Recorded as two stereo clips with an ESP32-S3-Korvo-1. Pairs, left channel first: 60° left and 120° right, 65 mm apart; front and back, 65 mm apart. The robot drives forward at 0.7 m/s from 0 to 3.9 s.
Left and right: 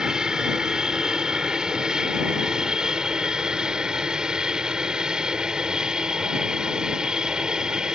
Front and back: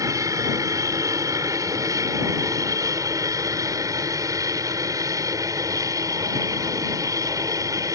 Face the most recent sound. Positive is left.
turn(degrees=160)